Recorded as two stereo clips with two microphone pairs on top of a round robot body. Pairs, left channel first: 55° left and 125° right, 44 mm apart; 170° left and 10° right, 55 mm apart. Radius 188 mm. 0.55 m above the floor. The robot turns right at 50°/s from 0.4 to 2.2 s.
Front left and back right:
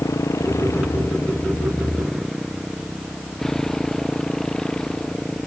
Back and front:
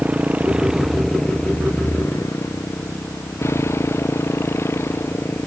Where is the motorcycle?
55° left; by 5.5 s 125° left.